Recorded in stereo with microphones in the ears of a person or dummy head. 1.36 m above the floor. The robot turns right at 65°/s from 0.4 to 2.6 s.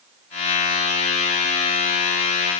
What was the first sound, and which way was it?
Only background noise.